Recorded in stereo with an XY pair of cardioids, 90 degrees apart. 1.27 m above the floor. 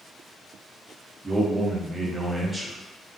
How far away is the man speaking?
About 0.7 m.